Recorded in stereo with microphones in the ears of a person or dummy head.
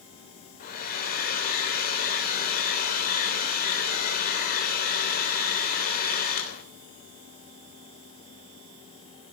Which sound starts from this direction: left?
A hair dryer, at 0.6 s.